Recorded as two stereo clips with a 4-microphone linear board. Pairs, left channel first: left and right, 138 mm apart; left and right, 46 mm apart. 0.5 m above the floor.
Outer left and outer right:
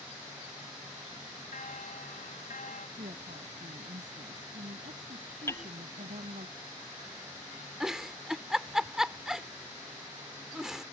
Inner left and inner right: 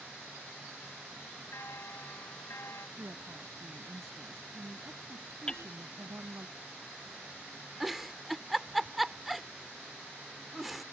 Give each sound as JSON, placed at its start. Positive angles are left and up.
{"t": 1.5, "sound": "a bell", "side_deg": 85}
{"t": 3.0, "sound": "a woman speaking", "side_deg": -75}
{"t": 5.5, "sound": "hammering", "side_deg": 20}
{"t": 7.8, "sound": "a giggle", "side_deg": -5}